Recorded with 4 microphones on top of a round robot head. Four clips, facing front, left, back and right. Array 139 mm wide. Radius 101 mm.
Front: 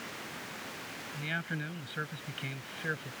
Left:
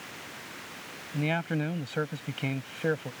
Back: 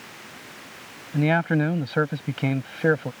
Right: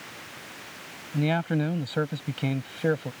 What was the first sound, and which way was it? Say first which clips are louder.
A man speaking: right 4 dB, back 18 dB; 170° right.